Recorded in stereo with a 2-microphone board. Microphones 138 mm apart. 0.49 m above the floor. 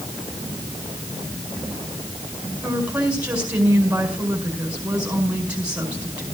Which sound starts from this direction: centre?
A woman speaking, at 2.6 s.